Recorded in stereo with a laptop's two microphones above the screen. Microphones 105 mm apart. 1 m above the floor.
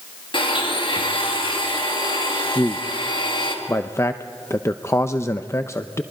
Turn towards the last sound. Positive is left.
turn(degrees=25)  # may be behind; listen again after turning